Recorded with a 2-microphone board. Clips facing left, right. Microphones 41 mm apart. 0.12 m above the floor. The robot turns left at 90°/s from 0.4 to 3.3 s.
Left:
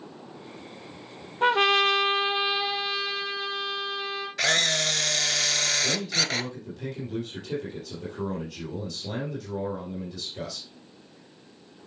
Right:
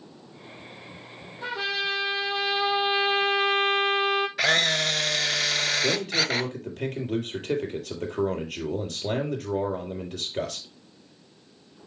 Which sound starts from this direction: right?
A man speaking, at 5.8 s.